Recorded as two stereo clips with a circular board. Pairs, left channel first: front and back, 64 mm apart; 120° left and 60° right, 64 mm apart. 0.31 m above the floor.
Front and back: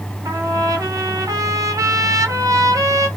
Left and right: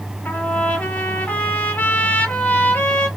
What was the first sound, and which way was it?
A trumpet, straight behind.